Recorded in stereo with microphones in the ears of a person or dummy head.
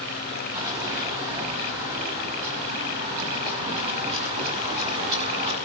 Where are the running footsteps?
25° right (ahead or behind), 4.5 m; by 5.6 s 35° right (ahead or behind), 8.5 m.